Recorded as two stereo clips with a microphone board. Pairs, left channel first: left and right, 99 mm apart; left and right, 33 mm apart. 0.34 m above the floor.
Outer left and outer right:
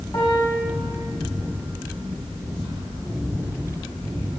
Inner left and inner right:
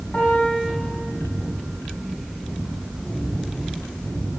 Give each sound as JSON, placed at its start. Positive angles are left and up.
{"t": 0.1, "sound": "a piano", "side_deg": 40, "distance_m": 8.0}